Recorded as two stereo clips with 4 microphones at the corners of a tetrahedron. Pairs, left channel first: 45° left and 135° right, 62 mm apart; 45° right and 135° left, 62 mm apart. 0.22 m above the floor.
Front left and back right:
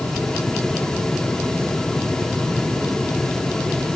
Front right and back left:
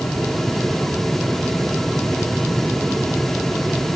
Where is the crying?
I don't hear crying.